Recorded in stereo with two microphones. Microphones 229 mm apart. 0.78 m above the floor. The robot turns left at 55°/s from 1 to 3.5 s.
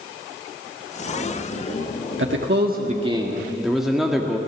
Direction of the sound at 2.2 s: 105° right.